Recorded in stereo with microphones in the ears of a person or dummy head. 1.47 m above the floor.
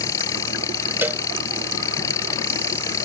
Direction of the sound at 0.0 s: 20° left (ahead or behind).